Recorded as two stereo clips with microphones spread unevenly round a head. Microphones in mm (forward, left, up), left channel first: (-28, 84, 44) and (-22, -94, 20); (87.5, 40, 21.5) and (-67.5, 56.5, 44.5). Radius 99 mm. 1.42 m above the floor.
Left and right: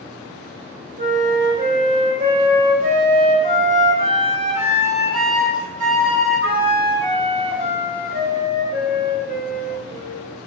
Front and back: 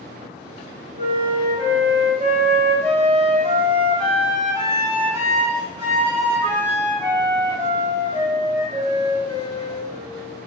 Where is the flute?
135° right, 0.7 m.